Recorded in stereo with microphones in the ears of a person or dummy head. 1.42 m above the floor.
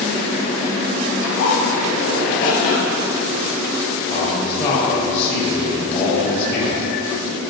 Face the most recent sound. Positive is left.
turn(degrees=35)  # may be behind; listen again after turning